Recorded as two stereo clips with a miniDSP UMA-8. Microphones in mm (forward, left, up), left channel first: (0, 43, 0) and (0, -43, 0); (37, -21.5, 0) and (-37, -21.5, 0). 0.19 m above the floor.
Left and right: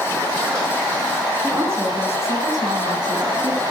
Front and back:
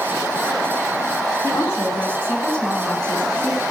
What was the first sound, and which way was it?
A woman speaking, 35° right.